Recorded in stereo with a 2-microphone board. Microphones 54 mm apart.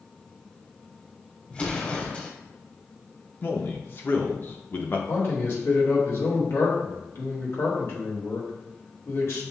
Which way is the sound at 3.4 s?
40° left (ahead or behind).